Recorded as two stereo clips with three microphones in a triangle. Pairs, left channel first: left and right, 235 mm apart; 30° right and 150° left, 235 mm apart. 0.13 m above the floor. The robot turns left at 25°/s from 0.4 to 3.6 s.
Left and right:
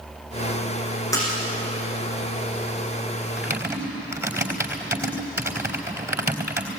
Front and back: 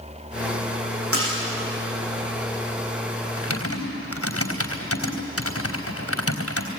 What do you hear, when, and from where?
1.1 s a splash: 165° left, 7.5 m; by 1.4 s 160° left, 7.5 m
3.4 s typing on a keyboard: 5° right, 3.5 m; by 6.7 s 10° right, 3.5 m